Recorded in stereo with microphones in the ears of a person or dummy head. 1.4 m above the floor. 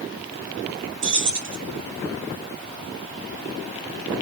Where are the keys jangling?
40° right (ahead or behind), 3.5 m.